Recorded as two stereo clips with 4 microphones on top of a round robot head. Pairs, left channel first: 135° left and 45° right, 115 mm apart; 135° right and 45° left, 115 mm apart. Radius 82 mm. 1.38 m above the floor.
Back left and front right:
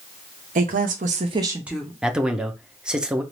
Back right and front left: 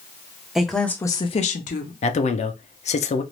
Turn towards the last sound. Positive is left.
turn(degrees=-125)